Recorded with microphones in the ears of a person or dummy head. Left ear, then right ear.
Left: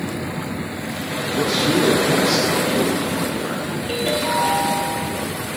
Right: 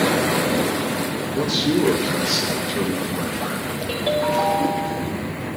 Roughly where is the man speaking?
Centre.